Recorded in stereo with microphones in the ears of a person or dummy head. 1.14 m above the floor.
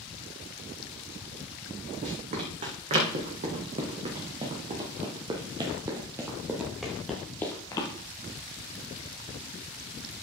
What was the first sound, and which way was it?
Running footsteps, 45° right (ahead or behind).